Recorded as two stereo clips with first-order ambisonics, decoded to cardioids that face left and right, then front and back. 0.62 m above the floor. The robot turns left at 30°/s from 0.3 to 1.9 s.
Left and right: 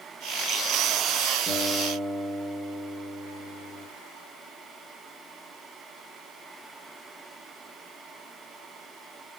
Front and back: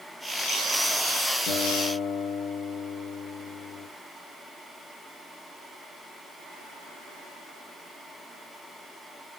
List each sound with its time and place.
1.5 s a guitar: 10° left, 1.4 m; by 3.9 s straight ahead, 1.4 m